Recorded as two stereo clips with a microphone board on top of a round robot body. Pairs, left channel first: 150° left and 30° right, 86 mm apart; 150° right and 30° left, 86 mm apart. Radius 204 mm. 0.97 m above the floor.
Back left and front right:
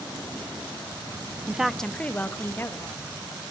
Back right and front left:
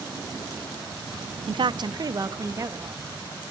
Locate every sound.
1.5 s a woman speaking: 40° left, 0.6 m; by 3.4 s 90° left, 2.5 m